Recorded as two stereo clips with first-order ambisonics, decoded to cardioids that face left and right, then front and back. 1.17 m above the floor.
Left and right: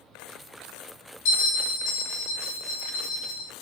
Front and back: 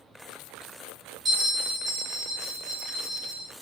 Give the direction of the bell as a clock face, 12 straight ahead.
8 o'clock.